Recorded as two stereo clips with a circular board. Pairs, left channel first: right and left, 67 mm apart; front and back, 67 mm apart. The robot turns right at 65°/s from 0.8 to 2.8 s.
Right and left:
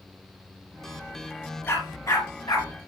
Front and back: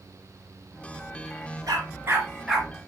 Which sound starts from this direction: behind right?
A dog barking, at 1.7 s.